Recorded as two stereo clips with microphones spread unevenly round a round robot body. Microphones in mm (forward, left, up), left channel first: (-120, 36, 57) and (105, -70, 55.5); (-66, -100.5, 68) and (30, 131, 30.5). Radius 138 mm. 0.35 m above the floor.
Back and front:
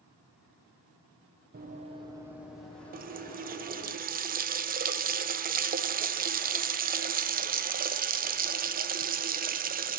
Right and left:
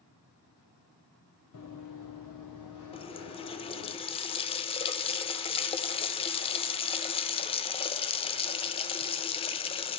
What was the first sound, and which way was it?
Running footsteps, 80° right.